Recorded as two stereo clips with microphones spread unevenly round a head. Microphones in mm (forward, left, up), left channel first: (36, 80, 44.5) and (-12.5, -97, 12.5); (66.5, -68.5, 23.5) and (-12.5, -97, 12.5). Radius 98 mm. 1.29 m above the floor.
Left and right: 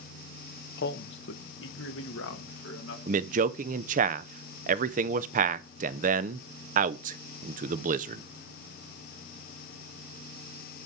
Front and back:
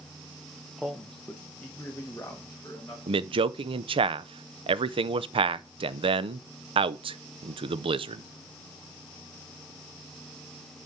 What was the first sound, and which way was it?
A man speaking, 115° left.